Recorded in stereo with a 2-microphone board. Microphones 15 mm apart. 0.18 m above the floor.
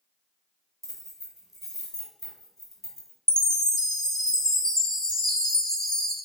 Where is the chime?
60° left (ahead or behind), 1.0 m.